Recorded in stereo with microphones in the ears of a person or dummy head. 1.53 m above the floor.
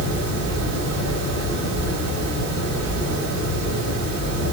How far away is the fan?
About 1.2 m.